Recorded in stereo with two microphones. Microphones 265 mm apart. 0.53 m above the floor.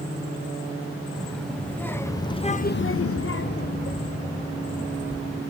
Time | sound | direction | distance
1.2 | a child speaking | centre (ahead or behind) | 1.9 m